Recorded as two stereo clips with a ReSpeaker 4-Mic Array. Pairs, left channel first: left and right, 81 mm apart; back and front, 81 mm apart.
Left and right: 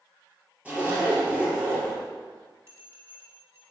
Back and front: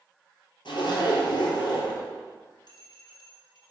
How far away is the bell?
About 3 m.